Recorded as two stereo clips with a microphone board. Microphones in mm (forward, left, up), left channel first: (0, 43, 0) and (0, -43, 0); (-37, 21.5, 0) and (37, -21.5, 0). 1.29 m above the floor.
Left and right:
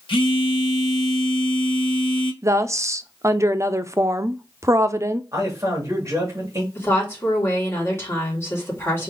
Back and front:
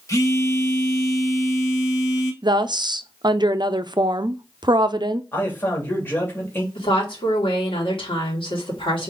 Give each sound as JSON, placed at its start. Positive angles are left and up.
{"t": 0.1, "sound": "a phone buzzing", "azimuth_deg": 100, "distance_m": 1.1}
{"t": 2.4, "sound": "a woman speaking", "azimuth_deg": -40, "distance_m": 0.5}
{"t": 5.3, "sound": "a man speaking", "azimuth_deg": -145, "distance_m": 2.5}
{"t": 6.8, "sound": "a woman speaking", "azimuth_deg": 150, "distance_m": 3.0}